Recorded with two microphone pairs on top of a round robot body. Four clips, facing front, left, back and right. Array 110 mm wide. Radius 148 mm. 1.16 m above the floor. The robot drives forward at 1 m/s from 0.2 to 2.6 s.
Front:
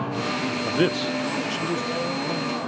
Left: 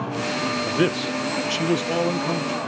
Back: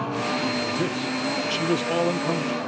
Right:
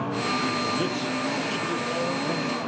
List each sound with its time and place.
0.7 s a man speaking: 35° left, 1.0 m; by 2.6 s 155° left, 1.4 m